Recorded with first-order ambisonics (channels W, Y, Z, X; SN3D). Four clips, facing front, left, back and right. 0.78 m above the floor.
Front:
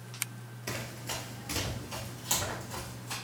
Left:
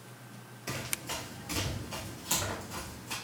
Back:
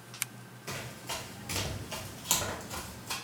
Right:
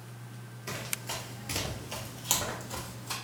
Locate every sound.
0.7 s running footsteps: 5° left, 0.8 m; by 3.1 s 125° right, 1.4 m